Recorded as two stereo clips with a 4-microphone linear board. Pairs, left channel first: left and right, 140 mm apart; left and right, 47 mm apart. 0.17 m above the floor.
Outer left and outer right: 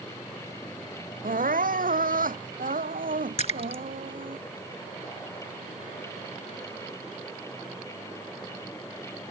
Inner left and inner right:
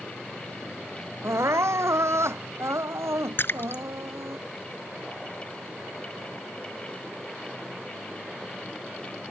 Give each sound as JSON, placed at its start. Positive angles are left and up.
{"t": 1.2, "sound": "crying", "side_deg": -80}
{"t": 3.4, "sound": "a splash", "side_deg": 55}